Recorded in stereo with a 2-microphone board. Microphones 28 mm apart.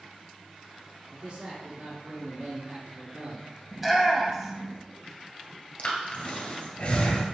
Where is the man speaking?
50° right (ahead or behind), 1.7 m.